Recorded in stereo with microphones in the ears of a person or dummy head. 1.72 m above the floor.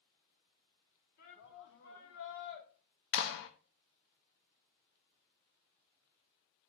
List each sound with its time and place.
1.2 s a shout: 45° left (ahead or behind), 2.5 m; by 2.7 s 65° left (ahead or behind), 1.7 m
3.1 s a clap: 75° left (ahead or behind), 1.0 m